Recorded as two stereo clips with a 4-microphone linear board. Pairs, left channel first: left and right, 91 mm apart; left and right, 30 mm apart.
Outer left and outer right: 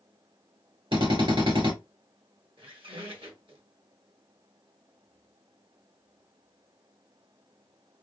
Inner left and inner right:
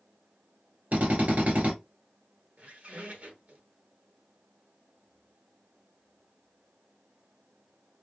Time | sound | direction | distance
0.9 | a drill | 70° right (ahead or behind) | 2.5 m
2.6 | a squeak | 65° right (ahead or behind) | 1.0 m